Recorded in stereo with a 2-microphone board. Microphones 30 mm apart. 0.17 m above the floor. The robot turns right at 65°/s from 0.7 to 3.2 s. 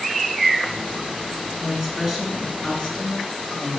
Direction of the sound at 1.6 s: 30° right.